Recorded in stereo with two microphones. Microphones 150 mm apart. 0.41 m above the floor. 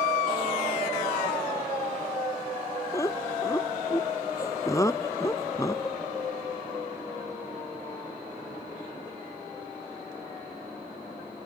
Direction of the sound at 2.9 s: 20° left (ahead or behind).